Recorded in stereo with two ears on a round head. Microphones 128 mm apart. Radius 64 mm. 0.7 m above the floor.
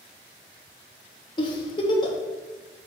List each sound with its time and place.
1.4 s a giggle: 30° left (ahead or behind), 0.9 m